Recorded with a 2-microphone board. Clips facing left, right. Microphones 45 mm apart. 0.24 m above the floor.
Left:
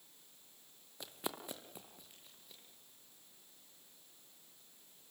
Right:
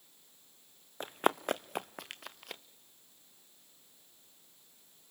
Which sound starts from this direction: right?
Running footsteps, at 1.0 s.